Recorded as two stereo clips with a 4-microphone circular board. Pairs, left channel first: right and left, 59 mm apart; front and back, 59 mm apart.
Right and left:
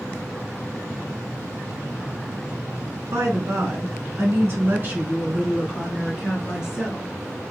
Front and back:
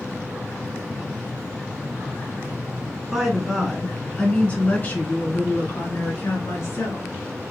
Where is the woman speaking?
95° left, 1.8 m; by 7.1 s 10° left, 2.5 m.